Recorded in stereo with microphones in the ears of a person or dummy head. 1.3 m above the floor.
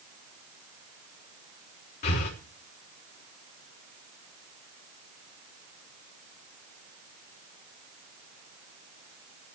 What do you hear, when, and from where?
2.0 s breathing: 55° left (ahead or behind), 4 m